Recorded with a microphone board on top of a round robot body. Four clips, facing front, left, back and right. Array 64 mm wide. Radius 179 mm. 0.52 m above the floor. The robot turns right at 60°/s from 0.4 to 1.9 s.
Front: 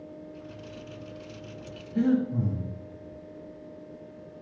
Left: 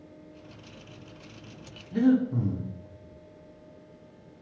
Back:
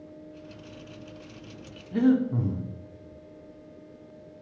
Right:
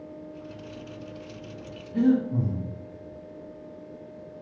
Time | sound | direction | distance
1.9 | breathing | 160° left | 1.6 m